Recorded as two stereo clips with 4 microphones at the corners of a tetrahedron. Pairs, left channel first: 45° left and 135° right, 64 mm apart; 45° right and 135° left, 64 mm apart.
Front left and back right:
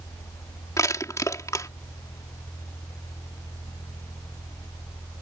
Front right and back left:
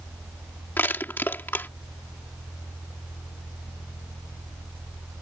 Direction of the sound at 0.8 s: 15° left.